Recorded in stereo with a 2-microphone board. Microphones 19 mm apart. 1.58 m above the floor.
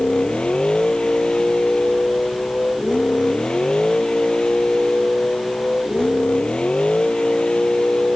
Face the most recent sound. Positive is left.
turn(degrees=75)  # may be behind; listen again after turning